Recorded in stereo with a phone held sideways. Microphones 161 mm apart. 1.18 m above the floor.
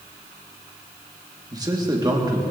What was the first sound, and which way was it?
A man speaking, 25° right (ahead or behind).